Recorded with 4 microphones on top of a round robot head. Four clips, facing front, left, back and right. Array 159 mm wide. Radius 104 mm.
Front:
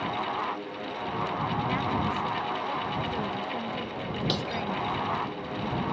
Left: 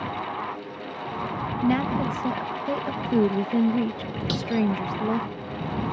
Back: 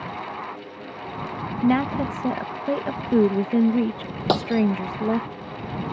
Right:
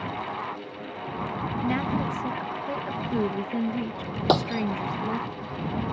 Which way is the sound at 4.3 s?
130° right.